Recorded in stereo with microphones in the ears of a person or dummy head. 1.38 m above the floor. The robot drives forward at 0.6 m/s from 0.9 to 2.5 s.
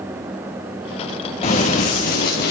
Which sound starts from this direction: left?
Running footsteps, at 1.4 s.